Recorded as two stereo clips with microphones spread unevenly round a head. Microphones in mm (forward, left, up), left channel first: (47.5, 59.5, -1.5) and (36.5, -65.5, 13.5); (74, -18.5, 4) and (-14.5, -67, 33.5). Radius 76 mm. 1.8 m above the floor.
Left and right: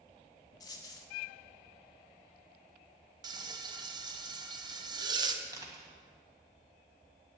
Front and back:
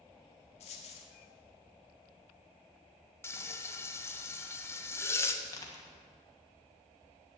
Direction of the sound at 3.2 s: 45° right.